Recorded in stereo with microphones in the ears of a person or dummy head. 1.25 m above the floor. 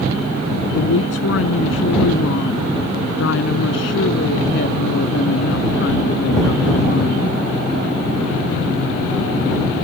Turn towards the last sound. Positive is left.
turn(degrees=55)  # may be behind; listen again after turning